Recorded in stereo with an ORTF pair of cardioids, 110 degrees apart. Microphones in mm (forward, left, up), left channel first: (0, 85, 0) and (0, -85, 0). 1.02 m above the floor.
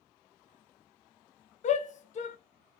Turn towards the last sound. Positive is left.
turn(degrees=45)